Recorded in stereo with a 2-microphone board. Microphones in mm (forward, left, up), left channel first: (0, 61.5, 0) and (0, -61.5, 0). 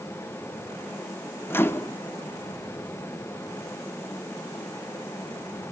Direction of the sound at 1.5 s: 20° left (ahead or behind).